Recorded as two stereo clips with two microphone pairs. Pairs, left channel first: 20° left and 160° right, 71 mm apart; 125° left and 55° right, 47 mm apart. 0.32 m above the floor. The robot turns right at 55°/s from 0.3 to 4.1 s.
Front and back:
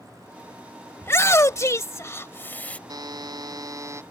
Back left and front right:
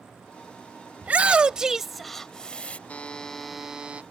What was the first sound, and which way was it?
A shout, 15° right.